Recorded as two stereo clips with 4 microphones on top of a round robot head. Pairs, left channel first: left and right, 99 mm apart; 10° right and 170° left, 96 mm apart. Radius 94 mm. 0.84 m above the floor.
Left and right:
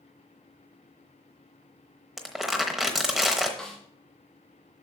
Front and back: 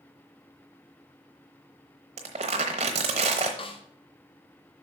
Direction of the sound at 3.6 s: 5° left.